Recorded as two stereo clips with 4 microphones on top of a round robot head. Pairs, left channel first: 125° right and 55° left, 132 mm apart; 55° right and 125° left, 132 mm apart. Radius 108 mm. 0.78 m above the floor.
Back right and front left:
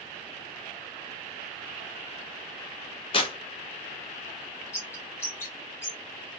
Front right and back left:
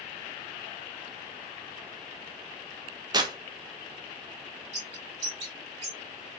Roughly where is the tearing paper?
Behind.